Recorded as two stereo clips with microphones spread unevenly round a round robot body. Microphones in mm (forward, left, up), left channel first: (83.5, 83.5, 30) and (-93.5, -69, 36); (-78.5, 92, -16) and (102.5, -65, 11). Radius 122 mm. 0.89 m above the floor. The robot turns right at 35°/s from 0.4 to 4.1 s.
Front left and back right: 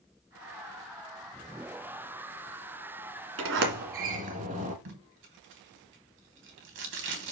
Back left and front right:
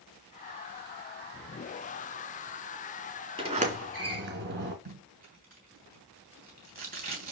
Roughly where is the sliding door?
Right.